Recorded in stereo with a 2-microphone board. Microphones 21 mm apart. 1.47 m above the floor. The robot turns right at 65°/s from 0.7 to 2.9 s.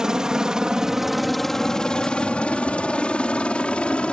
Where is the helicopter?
35° right (ahead or behind); by 4.1 s 65° left (ahead or behind).